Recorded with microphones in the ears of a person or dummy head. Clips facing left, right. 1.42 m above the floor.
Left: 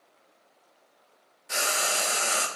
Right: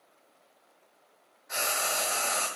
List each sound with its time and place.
1.5 s frying: 40° left (ahead or behind), 1.1 m